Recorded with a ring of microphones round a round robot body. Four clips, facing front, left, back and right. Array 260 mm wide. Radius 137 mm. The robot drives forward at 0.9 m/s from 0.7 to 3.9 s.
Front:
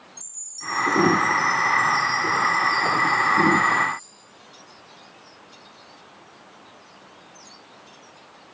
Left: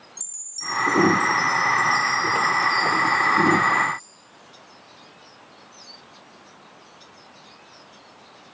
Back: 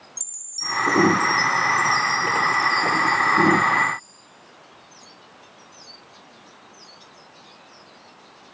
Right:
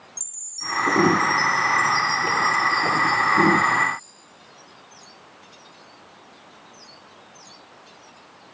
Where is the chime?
160° right, 3 m; by 4.0 s 170° right, 5.5 m.